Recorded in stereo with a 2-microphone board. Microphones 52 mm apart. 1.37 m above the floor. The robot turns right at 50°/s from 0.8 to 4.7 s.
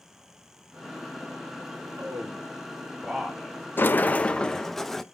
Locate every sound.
2.0 s a man speaking: 75° right (ahead or behind), 5 m; by 3.6 s 5° left (ahead or behind), 5 m
3.8 s a sliding door: 125° left, 0.7 m; by 5.0 s 175° left, 0.7 m